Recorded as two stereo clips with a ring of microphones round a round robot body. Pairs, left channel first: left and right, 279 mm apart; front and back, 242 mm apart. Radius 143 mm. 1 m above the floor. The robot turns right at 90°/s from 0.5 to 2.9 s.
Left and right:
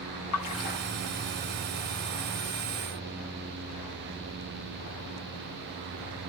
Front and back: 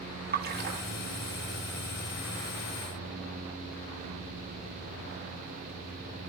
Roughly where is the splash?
Behind left.